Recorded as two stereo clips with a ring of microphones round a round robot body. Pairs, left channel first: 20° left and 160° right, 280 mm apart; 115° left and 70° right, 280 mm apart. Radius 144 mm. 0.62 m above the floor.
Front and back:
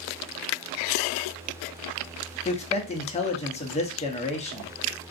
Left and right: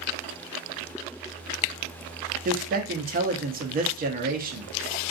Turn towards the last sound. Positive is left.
turn(degrees=-30)